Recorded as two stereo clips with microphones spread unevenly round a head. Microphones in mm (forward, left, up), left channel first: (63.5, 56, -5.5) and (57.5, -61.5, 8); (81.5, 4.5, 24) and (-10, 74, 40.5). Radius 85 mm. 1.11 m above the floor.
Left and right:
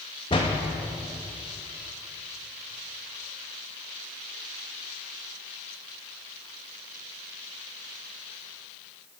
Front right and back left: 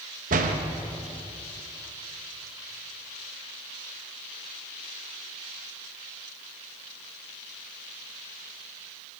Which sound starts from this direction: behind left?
A door slam, at 0.3 s.